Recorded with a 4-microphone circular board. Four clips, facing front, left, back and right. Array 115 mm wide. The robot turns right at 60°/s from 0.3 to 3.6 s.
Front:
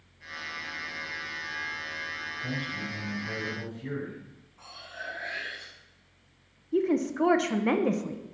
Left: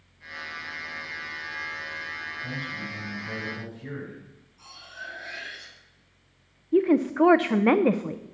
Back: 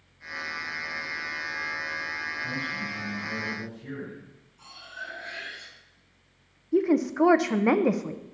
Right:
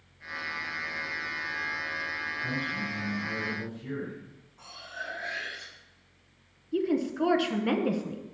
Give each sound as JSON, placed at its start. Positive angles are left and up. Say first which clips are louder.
{"t": 2.4, "sound": "a man speaking", "louder": "right 3 dB, back 2 dB", "azimuth_deg": -20, "distance_m": 6.0}
{"t": 4.6, "sound": "cutlery clinking", "louder": "right 2 dB, back 1 dB", "azimuth_deg": -35, "distance_m": 3.0}
{"t": 6.7, "sound": "a woman speaking", "louder": "left 7 dB, back 3 dB", "azimuth_deg": 115, "distance_m": 0.6}